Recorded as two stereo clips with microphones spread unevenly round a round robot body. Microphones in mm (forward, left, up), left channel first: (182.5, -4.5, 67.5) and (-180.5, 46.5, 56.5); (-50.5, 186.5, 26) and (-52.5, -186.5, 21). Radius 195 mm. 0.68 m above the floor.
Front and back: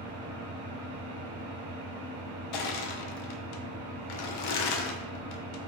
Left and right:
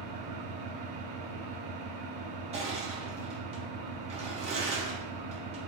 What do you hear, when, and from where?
0.0 s an engine running: 120° right, 1.2 m
2.5 s crushing: 20° right, 0.5 m